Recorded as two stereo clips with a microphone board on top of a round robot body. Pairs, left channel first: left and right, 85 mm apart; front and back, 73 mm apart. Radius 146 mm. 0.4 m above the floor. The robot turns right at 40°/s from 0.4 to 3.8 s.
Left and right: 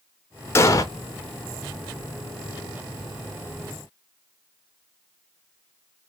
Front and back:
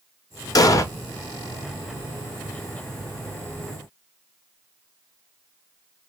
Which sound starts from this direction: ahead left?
An explosion, at 0.6 s.